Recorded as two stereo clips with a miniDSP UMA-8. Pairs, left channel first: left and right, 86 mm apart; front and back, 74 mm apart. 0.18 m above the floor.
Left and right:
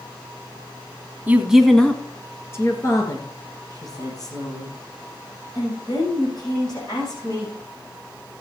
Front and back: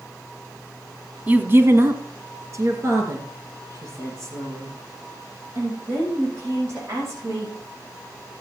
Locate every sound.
1.3 s a woman speaking: 135° right, 1.2 m; by 7.5 s 130° left, 9 m